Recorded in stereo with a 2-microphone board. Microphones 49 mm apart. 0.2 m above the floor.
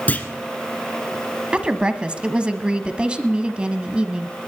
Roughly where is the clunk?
Left.